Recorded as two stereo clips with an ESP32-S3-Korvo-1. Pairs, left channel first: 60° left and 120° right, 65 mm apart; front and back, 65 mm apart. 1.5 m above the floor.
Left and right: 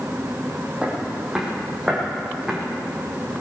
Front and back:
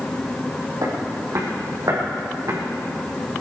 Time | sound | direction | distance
0.8 | footsteps | 165° left | 3.5 m